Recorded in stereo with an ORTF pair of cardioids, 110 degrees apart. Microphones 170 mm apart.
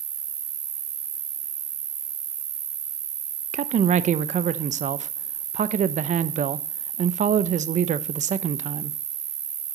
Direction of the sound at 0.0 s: 45° right.